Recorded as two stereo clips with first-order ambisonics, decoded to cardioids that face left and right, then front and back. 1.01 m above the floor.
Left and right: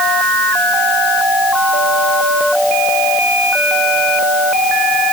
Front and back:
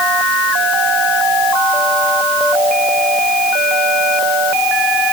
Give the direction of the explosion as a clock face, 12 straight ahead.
No explosion in this recording.